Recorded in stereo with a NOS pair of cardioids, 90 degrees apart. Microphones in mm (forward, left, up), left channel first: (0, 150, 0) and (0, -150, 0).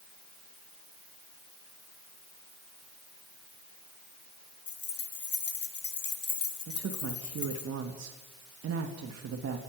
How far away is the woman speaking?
About 3 m.